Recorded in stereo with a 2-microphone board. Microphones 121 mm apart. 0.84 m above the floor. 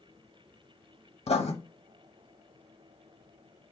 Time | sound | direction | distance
1.3 | writing | 60° left (ahead or behind) | 0.9 m